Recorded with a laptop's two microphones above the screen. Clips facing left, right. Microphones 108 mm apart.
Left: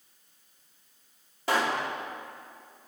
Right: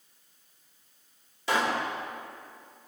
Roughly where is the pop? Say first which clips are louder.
Even; left.